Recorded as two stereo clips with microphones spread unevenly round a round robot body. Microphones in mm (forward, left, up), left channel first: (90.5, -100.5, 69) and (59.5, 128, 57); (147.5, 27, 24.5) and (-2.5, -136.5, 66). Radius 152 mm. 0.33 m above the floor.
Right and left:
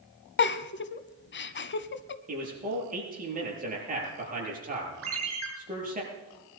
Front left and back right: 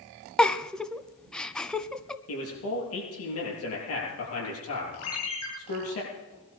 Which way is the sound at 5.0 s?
75° left.